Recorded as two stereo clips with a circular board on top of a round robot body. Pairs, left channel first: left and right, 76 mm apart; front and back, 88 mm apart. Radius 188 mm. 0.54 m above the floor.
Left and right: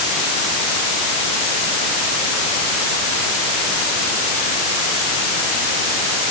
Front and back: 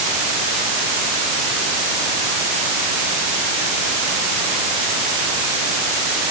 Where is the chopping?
No chopping in this recording.